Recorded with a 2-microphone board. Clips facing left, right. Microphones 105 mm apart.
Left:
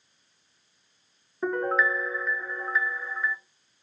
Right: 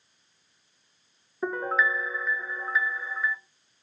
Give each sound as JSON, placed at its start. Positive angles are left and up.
{"t": 1.4, "sound": "a piano", "side_deg": 0, "distance_m": 0.5}